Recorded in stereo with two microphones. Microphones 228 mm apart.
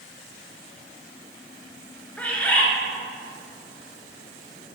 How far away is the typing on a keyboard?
No typing on a keyboard in this recording.